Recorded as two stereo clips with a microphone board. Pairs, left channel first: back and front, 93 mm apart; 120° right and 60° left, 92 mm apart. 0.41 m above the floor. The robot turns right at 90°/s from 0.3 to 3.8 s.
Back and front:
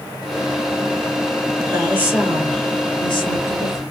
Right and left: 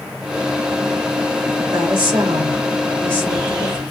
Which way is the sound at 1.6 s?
35° left.